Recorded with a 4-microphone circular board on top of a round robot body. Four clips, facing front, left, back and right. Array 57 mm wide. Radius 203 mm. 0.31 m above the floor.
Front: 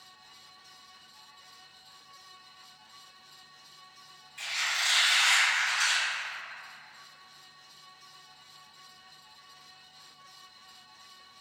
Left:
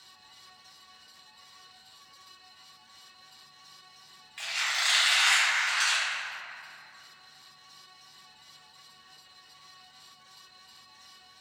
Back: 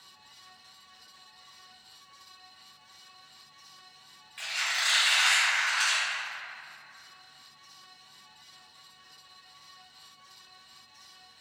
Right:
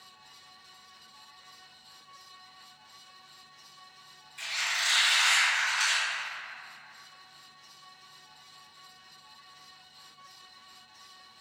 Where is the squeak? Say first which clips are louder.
Left 1 dB, even; 115° left, 1.3 m.